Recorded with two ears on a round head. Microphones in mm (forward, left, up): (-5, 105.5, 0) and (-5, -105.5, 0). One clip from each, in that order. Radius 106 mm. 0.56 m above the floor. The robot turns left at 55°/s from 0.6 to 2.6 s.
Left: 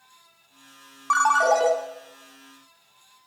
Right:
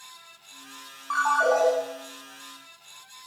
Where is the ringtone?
75° left, 0.7 m; by 1.7 s 40° left, 0.7 m.